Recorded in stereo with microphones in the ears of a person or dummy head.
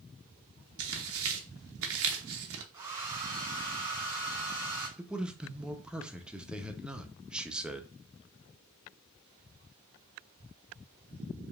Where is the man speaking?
Centre (ahead or behind), 0.6 m.